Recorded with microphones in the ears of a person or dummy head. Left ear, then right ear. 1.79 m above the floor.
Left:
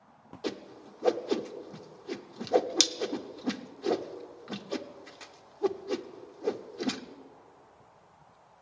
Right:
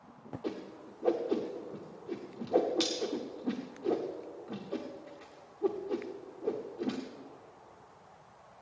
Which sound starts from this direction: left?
A whoosh, at 0.4 s.